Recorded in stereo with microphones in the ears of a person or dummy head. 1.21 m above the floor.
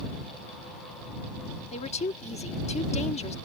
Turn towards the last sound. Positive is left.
turn(degrees=45)  # may be behind; listen again after turning